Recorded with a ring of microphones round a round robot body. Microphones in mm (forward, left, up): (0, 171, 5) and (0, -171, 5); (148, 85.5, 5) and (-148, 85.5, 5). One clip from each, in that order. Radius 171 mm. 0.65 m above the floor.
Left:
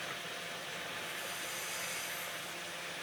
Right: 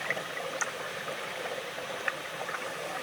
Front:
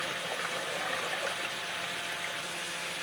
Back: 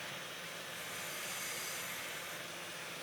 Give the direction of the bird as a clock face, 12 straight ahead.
I don't hear a bird.